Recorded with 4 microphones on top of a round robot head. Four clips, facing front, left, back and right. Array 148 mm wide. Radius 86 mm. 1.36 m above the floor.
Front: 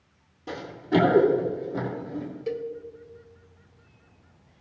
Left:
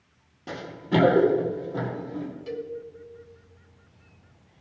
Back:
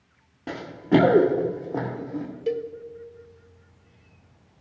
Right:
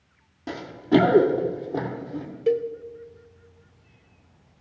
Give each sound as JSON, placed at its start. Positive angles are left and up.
{"t": 0.5, "sound": "running footsteps", "azimuth_deg": -160, "distance_m": 1.6}
{"t": 2.5, "sound": "a cowbell", "azimuth_deg": -115, "distance_m": 0.9}